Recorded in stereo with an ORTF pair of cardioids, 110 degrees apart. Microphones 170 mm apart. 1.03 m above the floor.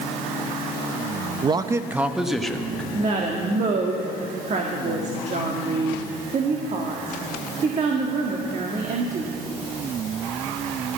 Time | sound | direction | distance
1.4 | a man speaking | 30° right | 0.7 m
2.9 | a woman speaking | 45° right | 1.9 m